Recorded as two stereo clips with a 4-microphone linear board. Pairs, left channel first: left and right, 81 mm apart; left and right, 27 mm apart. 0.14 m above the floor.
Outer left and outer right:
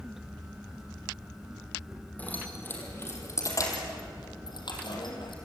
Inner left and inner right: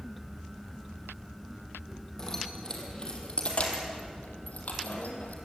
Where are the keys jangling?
20° left (ahead or behind), 5 m; by 5.3 s 75° left (ahead or behind), 4.5 m.